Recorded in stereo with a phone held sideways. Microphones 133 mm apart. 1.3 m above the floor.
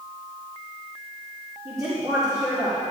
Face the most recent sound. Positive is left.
turn(degrees=-25)  # may be behind; listen again after turning